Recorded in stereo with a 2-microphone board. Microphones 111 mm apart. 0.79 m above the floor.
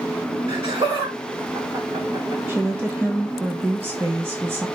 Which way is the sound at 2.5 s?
20° right (ahead or behind).